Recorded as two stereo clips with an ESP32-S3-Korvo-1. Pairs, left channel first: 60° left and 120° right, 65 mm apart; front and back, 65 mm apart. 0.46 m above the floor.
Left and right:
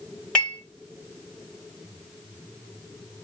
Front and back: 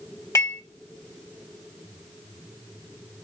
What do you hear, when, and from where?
0.3 s dishes clattering: 10° right, 1.5 m